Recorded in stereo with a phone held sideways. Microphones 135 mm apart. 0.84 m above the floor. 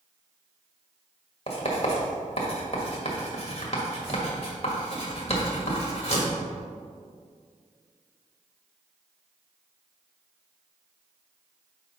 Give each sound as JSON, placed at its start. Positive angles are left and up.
{"t": 1.5, "sound": "writing", "side_deg": 50, "distance_m": 1.5}